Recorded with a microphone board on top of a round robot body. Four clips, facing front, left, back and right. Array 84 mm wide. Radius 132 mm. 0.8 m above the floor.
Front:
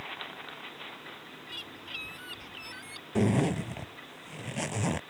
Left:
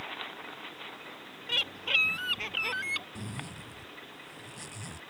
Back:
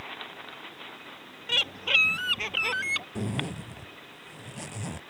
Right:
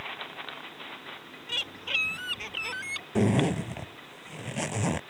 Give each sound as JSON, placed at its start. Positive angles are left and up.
{"t": 1.5, "sound": "a bird", "azimuth_deg": 170}
{"t": 3.1, "sound": "a zipper", "azimuth_deg": -60}